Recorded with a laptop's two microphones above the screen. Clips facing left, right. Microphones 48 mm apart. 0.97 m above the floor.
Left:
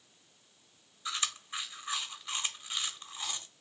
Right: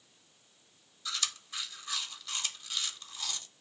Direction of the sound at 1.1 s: 25° left (ahead or behind).